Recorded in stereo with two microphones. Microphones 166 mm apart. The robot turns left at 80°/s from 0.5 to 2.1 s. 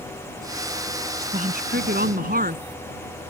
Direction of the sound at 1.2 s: 40° right.